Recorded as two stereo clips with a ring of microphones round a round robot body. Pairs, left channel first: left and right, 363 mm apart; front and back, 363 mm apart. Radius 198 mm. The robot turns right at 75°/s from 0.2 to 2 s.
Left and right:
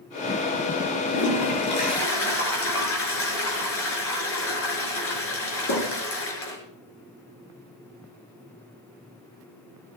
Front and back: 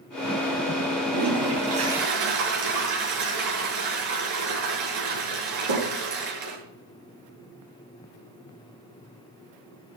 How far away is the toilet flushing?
About 6.5 m.